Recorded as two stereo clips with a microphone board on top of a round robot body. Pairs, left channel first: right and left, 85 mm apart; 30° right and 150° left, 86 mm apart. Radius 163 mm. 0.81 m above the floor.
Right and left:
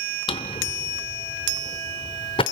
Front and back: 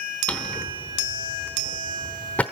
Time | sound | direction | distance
0.3 | a drawer | 105° right | 0.8 m